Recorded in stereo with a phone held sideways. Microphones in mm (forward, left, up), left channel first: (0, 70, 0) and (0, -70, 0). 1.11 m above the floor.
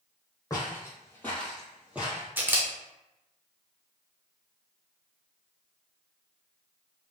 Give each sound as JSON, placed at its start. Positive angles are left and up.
{"t": 0.5, "sound": "footsteps", "side_deg": 25, "distance_m": 1.6}
{"t": 2.4, "sound": "a camera shutter", "side_deg": -15, "distance_m": 0.6}